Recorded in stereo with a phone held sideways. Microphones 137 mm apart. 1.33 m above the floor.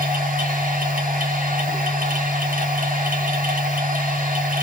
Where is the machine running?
75° right (ahead or behind), 1.8 m.